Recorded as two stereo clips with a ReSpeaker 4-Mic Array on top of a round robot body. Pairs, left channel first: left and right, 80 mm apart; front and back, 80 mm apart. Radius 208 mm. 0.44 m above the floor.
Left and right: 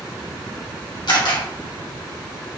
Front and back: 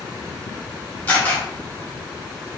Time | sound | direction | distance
1.1 | a camera shutter | 70° left | 1.8 m